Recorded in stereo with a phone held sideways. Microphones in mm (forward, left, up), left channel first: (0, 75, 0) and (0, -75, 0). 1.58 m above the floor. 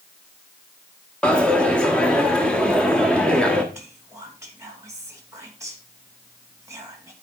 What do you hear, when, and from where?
1.2 s a dropped coin: 5° left (ahead or behind), 1.3 m
3.7 s whispering: 20° right (ahead or behind), 2.5 m